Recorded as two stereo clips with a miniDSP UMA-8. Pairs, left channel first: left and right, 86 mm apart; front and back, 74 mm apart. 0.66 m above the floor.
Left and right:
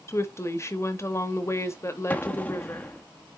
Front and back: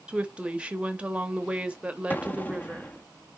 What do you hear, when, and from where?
0.1 s a woman speaking: 115° left, 0.9 m
2.1 s an explosion: 40° left, 0.8 m